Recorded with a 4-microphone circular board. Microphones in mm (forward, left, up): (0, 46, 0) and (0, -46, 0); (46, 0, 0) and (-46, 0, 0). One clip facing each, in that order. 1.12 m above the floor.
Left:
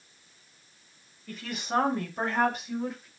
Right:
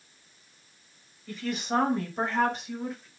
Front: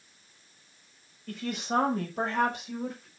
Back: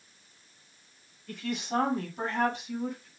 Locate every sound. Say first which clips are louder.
1.3 s a woman speaking: right 2 dB, front 1 dB; straight ahead, 6 m; by 3.1 s 5° left, 5 m